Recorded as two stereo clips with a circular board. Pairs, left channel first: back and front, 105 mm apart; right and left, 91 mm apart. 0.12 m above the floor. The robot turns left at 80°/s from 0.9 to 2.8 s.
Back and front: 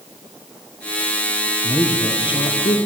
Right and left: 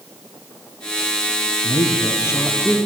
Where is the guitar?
I don't hear a guitar.